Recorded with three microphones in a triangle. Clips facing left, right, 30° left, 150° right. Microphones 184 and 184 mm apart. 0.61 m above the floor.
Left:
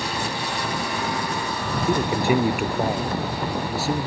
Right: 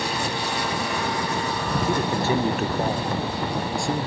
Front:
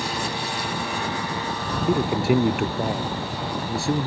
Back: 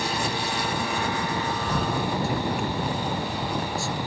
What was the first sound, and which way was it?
A man speaking, 15° left.